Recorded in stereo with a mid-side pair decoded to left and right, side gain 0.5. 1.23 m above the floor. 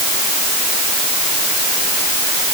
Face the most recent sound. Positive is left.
No sound to turn to.